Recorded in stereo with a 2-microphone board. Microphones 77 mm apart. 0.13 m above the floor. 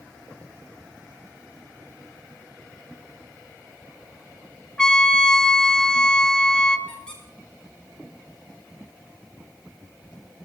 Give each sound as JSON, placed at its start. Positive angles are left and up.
{"t": 4.8, "sound": "a trumpet", "side_deg": 10, "distance_m": 2.0}
{"t": 6.9, "sound": "a squeak", "side_deg": 10, "distance_m": 10.0}